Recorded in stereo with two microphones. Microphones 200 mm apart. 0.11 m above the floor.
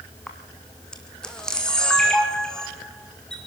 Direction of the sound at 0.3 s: 5° left (ahead or behind).